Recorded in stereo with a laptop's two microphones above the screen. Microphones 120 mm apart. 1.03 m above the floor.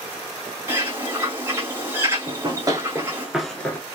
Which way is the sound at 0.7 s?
20° right (ahead or behind).